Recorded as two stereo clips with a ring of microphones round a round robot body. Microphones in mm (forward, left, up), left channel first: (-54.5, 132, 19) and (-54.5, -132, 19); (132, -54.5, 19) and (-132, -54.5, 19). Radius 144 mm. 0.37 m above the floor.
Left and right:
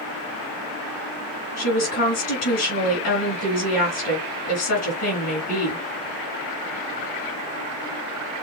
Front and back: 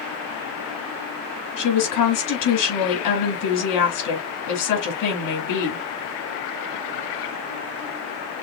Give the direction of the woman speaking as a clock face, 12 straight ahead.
11 o'clock.